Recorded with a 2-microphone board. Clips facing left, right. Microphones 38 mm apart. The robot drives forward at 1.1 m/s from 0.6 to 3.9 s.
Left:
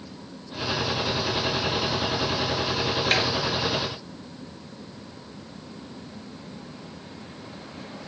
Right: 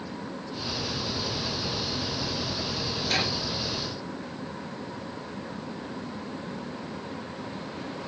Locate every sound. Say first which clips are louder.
3.1 s a snare drum: left 3 dB; 45° left (ahead or behind), 3 m; by 3.2 s 50° left (ahead or behind), 3 m